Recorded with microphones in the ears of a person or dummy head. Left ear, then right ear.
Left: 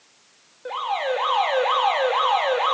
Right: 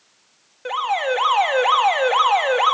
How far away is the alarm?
About 2 m.